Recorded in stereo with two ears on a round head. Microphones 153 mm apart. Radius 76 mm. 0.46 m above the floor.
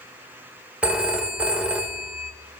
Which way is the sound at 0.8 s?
10° right (ahead or behind).